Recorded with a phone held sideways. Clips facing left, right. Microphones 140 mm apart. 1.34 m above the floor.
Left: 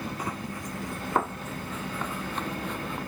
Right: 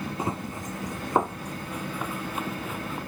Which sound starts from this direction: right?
Running footsteps, at 0.2 s.